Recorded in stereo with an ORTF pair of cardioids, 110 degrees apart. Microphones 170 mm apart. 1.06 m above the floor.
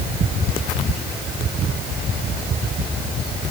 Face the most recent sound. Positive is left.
No sound to turn to.